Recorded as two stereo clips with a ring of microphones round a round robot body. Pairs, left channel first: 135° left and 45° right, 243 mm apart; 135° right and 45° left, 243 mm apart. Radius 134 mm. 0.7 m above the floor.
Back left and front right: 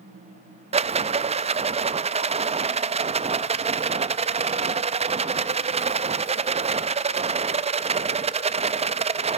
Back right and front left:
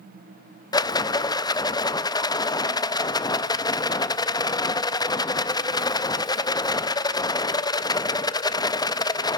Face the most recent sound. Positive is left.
turn(degrees=-75)